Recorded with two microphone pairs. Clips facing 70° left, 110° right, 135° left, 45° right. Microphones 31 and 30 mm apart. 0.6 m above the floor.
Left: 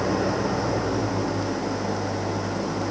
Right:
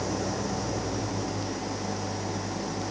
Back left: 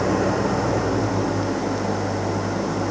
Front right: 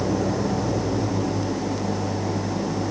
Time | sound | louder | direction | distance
0.0 | an engine running | left 7 dB, back left 3 dB | 120° left | ?